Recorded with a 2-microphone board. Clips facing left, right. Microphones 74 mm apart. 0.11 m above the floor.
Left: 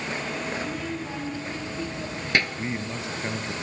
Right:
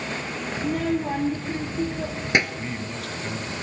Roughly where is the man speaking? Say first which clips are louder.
Left 1 dB; left.